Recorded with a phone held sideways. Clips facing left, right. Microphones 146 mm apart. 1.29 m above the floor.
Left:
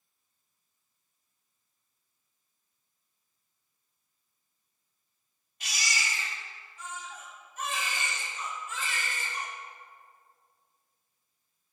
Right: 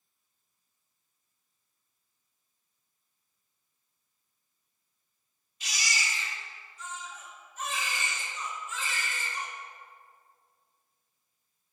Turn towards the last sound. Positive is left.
turn(degrees=60)  # may be behind; listen again after turning